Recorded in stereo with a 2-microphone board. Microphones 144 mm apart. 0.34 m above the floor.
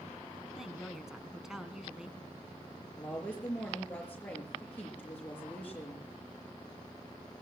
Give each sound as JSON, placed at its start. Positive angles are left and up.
{"t": 0.5, "sound": "a woman speaking", "side_deg": -5, "distance_m": 2.5}
{"t": 3.0, "sound": "a woman speaking", "side_deg": 10, "distance_m": 6.5}